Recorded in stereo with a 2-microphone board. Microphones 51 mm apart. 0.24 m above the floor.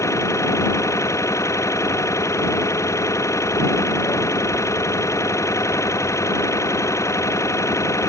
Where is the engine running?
80° left.